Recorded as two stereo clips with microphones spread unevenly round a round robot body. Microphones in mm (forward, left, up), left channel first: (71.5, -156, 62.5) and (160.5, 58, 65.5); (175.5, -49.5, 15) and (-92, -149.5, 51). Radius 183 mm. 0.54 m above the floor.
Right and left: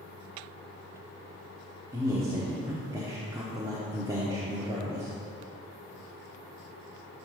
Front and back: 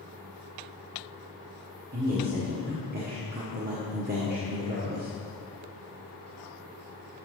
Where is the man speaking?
140° left, 1.2 m.